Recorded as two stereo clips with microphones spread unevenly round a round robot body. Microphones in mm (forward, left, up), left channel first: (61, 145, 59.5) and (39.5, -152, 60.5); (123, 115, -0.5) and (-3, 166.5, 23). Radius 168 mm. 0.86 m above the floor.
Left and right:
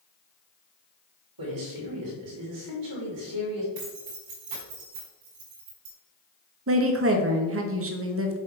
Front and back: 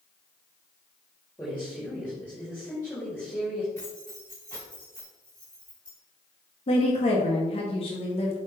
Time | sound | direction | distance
1.4 | a man speaking | 105° right | 3 m
3.8 | keys jangling | 105° right | 3 m
6.7 | a woman speaking | 55° right | 1.3 m